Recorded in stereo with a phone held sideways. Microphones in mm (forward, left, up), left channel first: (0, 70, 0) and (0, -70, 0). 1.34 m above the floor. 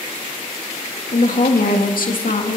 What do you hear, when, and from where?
1.1 s a woman speaking: 70° left (ahead or behind), 2.5 m; by 2.6 s 65° left (ahead or behind), 2.5 m